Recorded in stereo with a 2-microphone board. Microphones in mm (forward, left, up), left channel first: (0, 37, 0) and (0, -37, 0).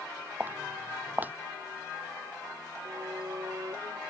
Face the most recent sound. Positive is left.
turn(degrees=-45)  # may be behind; listen again after turning